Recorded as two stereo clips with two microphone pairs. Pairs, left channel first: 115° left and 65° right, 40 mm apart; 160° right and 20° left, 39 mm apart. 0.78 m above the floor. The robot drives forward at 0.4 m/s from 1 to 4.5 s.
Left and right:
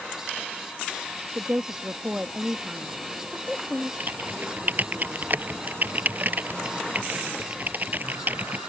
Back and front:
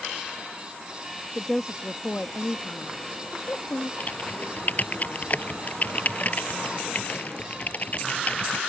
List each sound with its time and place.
1.4 s a woman speaking: 85° right; by 3.9 s 150° right
4.0 s typing on a keyboard: 110° right